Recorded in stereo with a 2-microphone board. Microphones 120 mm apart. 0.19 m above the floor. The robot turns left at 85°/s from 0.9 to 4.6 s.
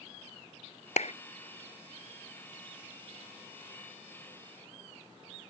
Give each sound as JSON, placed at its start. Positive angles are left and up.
{"t": 1.0, "sound": "a clap", "side_deg": 70}